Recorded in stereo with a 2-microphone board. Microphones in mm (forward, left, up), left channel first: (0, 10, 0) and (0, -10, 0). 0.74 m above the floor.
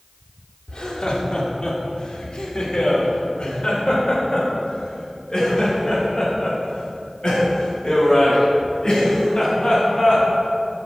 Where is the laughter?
65° left (ahead or behind), 1.7 m; by 10.2 s 50° left (ahead or behind), 6 m.